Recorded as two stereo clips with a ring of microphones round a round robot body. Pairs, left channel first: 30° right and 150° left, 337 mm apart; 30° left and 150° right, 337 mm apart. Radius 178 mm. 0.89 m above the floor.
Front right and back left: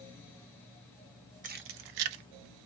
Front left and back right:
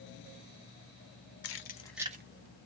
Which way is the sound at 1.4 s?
80° left.